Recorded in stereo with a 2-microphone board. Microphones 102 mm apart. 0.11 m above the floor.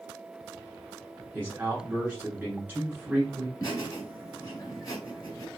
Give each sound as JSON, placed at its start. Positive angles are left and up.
{"t": 1.3, "sound": "a man speaking", "side_deg": -20, "distance_m": 1.2}
{"t": 3.6, "sound": "laughter", "side_deg": 25, "distance_m": 1.6}